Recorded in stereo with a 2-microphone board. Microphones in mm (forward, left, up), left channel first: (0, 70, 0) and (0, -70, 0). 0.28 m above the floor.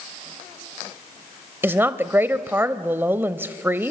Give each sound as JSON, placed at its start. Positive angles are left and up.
{"t": 1.6, "sound": "a woman speaking", "side_deg": -15, "distance_m": 1.0}